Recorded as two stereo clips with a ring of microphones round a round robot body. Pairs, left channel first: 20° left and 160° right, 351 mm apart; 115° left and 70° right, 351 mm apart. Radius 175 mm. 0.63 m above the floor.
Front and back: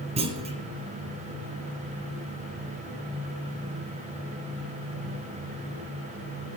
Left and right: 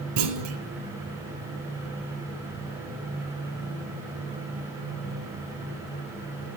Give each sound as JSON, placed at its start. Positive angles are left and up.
{"t": 0.2, "sound": "a clunk", "azimuth_deg": -85, "distance_m": 2.0}